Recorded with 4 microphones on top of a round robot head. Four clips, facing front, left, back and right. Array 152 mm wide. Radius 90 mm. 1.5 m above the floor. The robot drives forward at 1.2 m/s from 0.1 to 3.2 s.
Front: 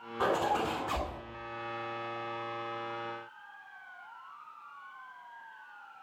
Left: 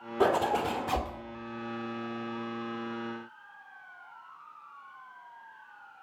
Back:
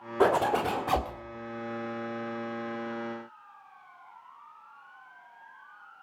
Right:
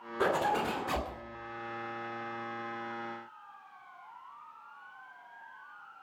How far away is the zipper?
About 2.5 m.